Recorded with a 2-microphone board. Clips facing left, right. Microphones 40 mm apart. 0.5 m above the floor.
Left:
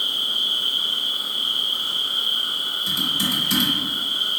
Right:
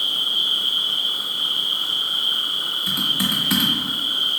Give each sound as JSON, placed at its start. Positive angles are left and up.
{"t": 0.0, "sound": "an insect", "side_deg": -70, "distance_m": 1.6}
{"t": 2.9, "sound": "typing on a keyboard", "side_deg": -30, "distance_m": 0.8}